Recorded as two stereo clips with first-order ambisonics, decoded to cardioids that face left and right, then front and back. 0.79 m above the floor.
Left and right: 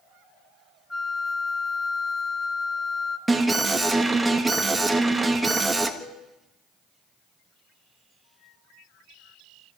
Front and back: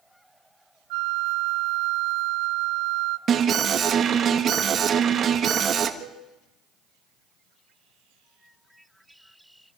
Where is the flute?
175° left, 0.7 m.